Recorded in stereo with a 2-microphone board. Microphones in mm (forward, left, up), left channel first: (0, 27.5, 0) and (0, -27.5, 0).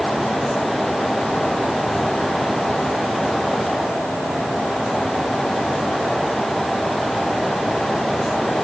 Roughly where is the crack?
No crack in this recording.